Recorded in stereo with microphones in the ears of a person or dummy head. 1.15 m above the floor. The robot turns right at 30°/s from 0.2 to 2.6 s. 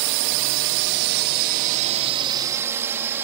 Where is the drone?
60° right (ahead or behind); by 3.2 s 10° right (ahead or behind).